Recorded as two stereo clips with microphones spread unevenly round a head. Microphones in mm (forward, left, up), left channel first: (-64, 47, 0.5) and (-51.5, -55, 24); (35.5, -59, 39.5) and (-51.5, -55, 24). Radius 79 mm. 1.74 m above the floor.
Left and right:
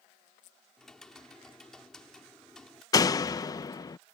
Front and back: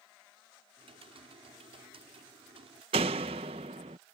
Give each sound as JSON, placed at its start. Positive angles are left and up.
{"t": 0.8, "sound": "typing on a keyboard", "azimuth_deg": -175}
{"t": 2.9, "sound": "a door slam", "azimuth_deg": 155}